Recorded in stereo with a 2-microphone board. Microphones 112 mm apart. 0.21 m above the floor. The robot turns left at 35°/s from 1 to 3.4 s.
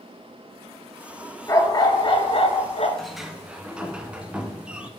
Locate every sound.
1.5 s a dog barking: 150° left, 0.9 m; by 2.9 s 105° left, 0.9 m
3.0 s a sliding door: 5° left (ahead or behind), 0.6 m; by 4.9 s 10° right (ahead or behind), 0.6 m